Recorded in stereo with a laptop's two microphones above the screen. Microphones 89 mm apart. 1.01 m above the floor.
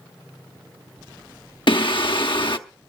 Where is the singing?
70° left (ahead or behind), 1.0 m.